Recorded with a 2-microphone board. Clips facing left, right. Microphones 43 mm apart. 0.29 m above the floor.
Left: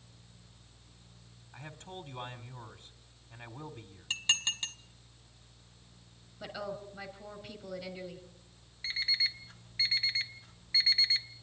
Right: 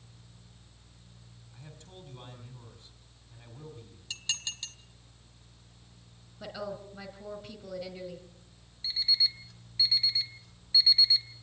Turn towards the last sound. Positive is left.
turn(degrees=40)  # may be behind; listen again after turning